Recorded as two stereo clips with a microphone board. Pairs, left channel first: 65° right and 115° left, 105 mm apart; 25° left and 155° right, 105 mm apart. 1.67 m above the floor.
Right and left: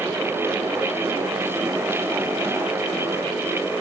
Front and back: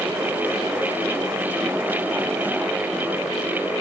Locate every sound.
Only background noise.